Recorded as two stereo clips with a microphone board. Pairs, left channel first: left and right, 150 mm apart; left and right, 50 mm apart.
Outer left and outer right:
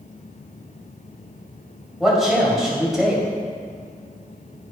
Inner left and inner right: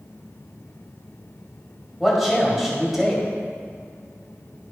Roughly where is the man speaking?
Centre.